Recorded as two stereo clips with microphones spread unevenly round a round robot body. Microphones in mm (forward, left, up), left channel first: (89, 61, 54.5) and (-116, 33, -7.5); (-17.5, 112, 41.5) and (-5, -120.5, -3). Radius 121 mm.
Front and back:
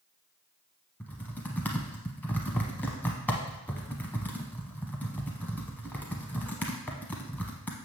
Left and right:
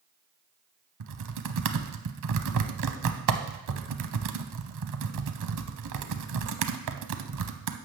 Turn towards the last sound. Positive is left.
turn(degrees=-70)